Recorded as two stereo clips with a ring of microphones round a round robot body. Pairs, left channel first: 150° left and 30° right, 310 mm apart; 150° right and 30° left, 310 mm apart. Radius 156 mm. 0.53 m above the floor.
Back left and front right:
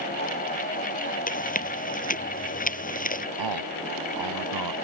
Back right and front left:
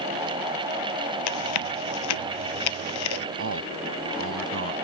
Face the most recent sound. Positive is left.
turn(degrees=-15)